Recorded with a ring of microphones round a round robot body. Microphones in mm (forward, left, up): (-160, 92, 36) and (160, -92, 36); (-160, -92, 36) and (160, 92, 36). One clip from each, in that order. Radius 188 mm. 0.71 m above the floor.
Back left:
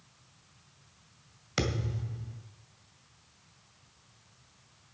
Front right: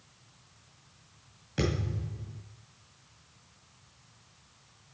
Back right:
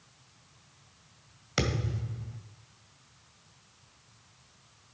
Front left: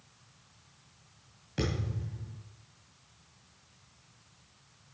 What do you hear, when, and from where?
1.6 s a thud: 175° right, 2 m